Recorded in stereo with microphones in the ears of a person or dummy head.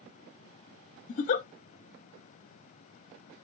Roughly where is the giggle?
Left.